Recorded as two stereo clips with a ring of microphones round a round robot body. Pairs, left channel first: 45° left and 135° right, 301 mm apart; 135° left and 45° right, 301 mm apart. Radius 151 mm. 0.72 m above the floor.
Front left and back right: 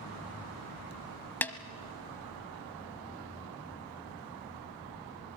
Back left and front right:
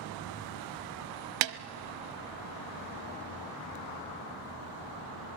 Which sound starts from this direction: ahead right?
A snare drum, at 1.4 s.